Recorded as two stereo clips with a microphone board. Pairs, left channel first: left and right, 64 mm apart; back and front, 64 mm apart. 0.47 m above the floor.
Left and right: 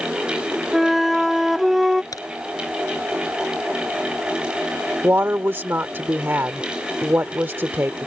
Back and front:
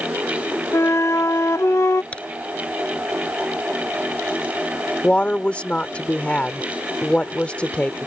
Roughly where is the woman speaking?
Behind right.